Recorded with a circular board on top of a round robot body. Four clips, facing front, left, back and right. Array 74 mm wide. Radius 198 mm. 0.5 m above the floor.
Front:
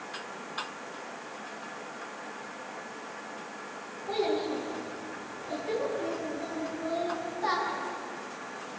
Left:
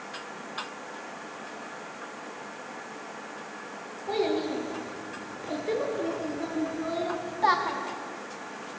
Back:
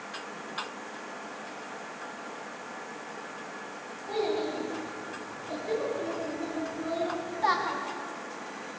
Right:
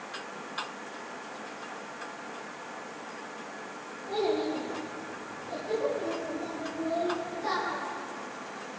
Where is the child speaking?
80° left, 8 m; by 7.8 s 120° left, 3 m.